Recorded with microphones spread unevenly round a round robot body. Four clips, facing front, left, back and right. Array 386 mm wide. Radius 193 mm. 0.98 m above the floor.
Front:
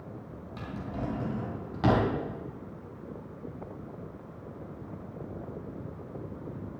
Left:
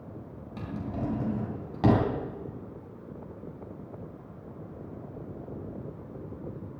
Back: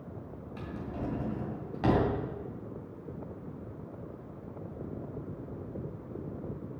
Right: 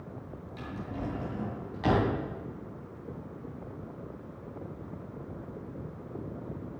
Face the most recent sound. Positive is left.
turn(degrees=70)